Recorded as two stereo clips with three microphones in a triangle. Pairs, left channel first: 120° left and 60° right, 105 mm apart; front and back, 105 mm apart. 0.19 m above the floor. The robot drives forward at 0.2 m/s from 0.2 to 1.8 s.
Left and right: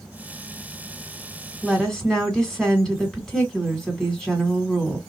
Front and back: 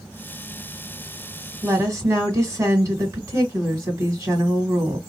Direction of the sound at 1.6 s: 160° right.